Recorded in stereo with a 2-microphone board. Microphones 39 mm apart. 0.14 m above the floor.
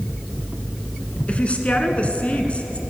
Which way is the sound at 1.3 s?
35° left (ahead or behind).